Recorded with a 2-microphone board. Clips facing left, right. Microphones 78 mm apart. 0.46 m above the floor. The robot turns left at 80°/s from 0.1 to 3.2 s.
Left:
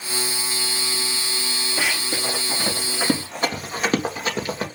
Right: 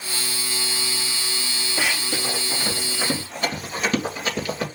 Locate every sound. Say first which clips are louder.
1.8 s running footsteps: even; 5° left (ahead or behind), 4.5 m; by 4.7 s 35° left (ahead or behind), 3.5 m